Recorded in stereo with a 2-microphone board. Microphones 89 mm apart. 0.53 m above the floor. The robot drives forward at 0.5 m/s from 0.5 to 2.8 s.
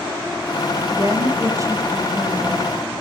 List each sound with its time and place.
0.9 s a woman speaking: 40° right (ahead or behind), 2.5 m; by 2.9 s 30° right (ahead or behind), 3.5 m